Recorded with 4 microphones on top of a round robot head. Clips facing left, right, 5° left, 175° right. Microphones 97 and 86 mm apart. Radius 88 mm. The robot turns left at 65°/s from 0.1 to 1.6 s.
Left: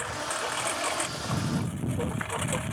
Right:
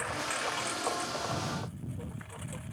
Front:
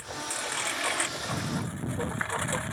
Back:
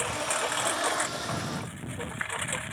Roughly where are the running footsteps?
No running footsteps in this recording.